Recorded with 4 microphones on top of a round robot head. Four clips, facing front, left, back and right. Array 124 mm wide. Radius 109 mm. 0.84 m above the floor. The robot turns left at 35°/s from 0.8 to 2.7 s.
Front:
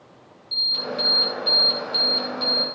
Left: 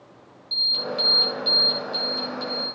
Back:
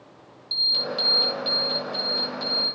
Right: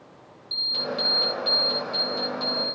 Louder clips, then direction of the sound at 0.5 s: Left 1 dB, front 1 dB; straight behind.